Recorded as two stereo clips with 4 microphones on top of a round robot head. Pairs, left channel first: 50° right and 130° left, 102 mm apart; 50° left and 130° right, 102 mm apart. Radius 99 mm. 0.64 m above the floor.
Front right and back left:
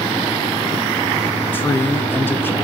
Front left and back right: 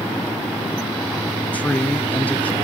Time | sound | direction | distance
1.5 | a man speaking | 10° right | 1.3 m